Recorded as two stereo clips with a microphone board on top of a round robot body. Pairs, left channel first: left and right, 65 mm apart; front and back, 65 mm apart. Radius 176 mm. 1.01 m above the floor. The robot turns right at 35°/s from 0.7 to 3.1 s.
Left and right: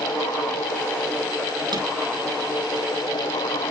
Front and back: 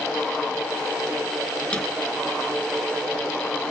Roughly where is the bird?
No bird in this recording.